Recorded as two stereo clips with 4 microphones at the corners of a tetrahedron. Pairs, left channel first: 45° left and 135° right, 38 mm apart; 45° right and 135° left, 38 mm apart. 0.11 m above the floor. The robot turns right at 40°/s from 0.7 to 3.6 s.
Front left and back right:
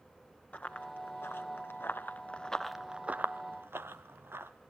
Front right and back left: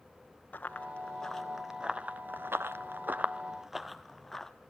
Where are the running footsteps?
Straight ahead, 2 m; by 4.5 s 125° right, 1.7 m.